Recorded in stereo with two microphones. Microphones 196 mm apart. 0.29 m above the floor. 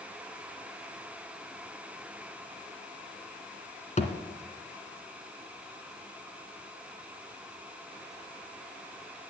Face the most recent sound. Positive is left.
turn(degrees=35)  # may be behind; listen again after turning